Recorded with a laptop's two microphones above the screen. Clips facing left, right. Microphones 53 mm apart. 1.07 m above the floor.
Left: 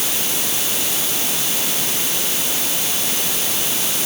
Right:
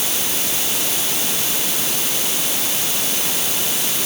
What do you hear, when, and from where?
Only background noise.